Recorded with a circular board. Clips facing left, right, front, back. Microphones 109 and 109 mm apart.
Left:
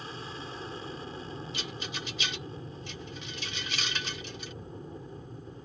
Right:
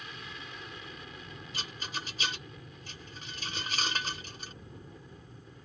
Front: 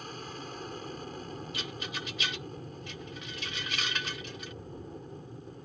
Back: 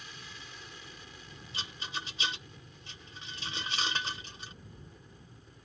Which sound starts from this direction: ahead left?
An aircraft, at 0.0 s.